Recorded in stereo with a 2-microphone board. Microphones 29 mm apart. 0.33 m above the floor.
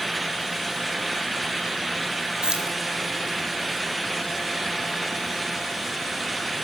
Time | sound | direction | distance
2.4 | keys jangling | 25° right (ahead or behind) | 4 m